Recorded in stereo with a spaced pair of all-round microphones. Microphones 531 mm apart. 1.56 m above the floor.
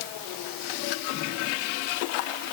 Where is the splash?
No splash in this recording.